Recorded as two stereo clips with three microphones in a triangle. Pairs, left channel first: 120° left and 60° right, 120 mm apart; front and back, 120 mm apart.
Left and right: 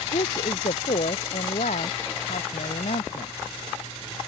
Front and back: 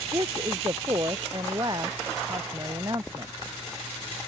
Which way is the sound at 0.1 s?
125° left.